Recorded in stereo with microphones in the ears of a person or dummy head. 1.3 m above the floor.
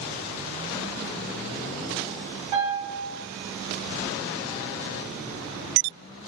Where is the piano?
25° right (ahead or behind), 2.0 m.